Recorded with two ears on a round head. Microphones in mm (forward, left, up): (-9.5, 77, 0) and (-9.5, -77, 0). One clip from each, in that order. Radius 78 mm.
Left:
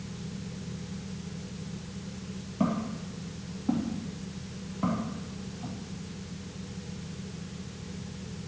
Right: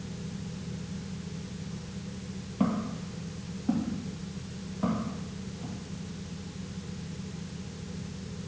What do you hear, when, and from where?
2.6 s footsteps: 10° right (ahead or behind), 1.6 m; by 5.8 s 15° left (ahead or behind), 4 m